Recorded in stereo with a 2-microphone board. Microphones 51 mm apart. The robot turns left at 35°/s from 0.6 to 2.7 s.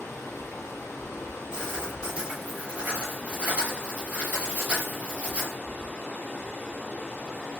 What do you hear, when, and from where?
0.0 s running water: 110° left, 1.3 m; by 7.6 s 35° left, 1.3 m
1.5 s writing: 15° right, 1.5 m; by 5.5 s 60° right, 1.5 m